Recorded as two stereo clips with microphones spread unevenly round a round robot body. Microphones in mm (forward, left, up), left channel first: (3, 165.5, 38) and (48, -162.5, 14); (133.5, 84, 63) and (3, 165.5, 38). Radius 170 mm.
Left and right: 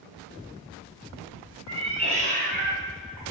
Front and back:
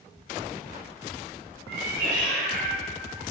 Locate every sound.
1.7 s a cat meowing: 160° right, 1.8 m; by 3.2 s 135° right, 1.3 m